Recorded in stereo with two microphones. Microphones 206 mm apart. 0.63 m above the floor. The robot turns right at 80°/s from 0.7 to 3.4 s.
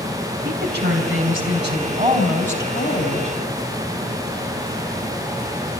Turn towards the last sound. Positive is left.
turn(degrees=85)